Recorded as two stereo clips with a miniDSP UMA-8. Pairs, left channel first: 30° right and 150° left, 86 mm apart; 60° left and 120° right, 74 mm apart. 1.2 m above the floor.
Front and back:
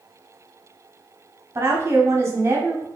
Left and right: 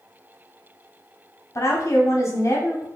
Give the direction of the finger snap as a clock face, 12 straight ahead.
I don't hear a finger snap.